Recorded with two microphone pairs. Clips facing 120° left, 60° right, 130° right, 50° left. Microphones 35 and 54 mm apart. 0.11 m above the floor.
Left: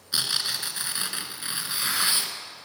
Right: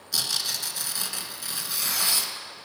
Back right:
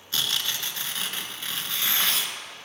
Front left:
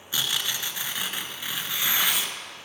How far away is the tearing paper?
About 1.4 m.